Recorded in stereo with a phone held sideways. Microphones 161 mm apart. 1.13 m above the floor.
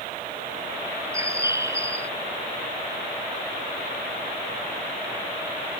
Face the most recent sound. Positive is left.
turn(degrees=-20)  # may be behind; listen again after turning